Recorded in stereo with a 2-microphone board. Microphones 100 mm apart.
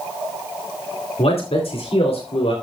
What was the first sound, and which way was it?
A man speaking, 70° left (ahead or behind).